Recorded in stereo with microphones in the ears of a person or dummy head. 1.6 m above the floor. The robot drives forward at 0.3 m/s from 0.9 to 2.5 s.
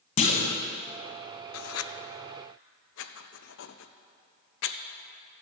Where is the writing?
70° left (ahead or behind), 0.6 m; by 4.8 s 65° left (ahead or behind), 0.6 m.